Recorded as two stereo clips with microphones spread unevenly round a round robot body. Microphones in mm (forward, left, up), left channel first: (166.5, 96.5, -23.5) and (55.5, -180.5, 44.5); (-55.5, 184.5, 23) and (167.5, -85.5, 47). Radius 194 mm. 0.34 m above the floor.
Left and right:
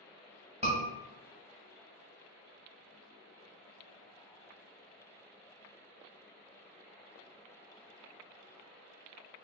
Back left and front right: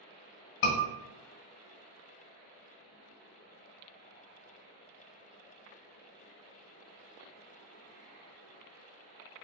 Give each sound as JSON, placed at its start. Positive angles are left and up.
{"t": 0.6, "sound": "a scream", "azimuth_deg": 170, "distance_m": 1.4}